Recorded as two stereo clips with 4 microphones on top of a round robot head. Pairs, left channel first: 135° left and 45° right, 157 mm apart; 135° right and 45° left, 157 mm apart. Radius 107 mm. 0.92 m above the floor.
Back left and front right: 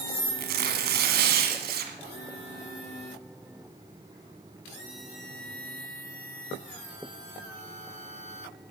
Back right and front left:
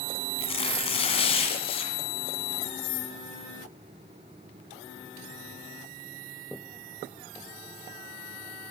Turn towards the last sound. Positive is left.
turn(degrees=-75)